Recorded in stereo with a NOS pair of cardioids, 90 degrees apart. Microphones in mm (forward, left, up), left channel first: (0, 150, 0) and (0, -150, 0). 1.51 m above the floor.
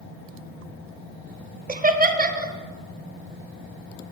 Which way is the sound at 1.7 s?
30° right.